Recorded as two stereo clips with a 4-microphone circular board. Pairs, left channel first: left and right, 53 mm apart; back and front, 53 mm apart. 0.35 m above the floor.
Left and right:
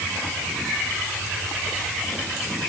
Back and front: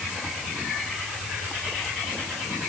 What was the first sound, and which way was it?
Only background noise.